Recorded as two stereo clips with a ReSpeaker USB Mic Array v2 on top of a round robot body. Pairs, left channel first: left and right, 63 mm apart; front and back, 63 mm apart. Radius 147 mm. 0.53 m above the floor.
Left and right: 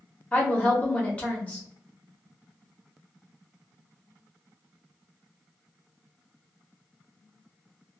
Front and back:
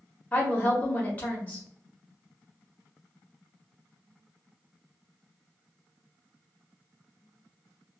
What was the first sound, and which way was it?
A woman speaking, 45° left.